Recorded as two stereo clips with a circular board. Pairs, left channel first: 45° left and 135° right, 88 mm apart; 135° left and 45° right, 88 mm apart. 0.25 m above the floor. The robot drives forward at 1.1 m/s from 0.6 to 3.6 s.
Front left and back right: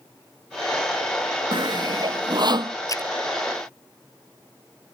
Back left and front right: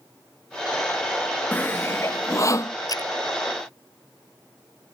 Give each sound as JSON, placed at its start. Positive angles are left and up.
{"t": 1.5, "sound": "sawing", "azimuth_deg": -155}
{"t": 2.9, "sound": "a splash", "azimuth_deg": 90}